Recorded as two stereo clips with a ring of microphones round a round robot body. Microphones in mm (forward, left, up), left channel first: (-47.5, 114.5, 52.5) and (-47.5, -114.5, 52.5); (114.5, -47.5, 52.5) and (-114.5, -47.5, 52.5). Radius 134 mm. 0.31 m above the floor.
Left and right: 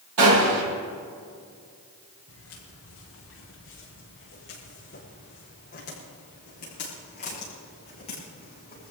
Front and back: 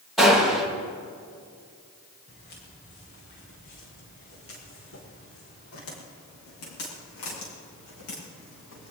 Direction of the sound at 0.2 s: 90° right.